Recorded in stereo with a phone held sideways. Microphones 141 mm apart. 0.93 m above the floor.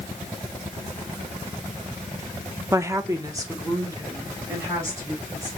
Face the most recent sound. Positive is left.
turn(degrees=-25)  # may be behind; listen again after turning